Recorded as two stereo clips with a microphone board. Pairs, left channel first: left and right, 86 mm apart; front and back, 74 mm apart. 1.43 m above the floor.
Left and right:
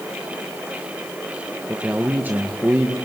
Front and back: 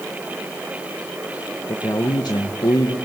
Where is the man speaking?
20° right, 1.7 m.